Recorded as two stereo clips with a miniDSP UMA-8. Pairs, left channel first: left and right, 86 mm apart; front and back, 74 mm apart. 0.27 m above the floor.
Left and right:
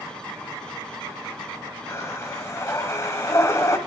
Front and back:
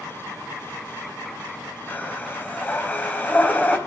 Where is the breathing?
55° left, 1.4 m.